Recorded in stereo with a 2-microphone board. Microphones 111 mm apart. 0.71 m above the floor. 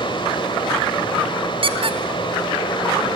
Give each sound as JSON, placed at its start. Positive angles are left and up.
{"t": 0.0, "sound": "running water", "side_deg": 45, "distance_m": 2.5}
{"t": 1.6, "sound": "a squeak", "side_deg": -50, "distance_m": 1.1}